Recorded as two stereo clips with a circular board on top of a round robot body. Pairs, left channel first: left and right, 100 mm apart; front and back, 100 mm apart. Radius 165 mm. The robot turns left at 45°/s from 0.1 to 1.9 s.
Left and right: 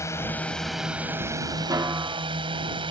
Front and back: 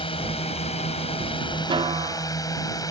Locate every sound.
0.0 s a drone: 30° left; by 2.9 s 55° right
1.7 s a snare drum: 145° right; by 2.3 s 155° right